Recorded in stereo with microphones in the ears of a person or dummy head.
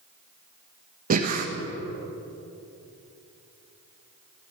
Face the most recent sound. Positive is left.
turn(degrees=-50)  # may be behind; listen again after turning